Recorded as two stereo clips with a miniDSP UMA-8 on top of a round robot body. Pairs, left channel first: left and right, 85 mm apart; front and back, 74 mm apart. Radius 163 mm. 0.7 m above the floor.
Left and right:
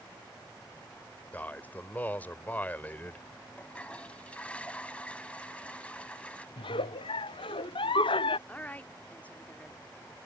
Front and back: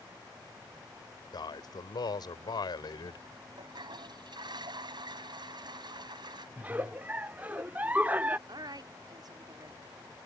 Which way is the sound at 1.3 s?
20° left.